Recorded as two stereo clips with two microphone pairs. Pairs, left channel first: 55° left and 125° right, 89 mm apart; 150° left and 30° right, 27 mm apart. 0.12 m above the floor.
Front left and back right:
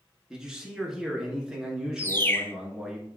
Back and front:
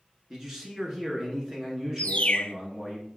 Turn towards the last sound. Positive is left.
turn(degrees=115)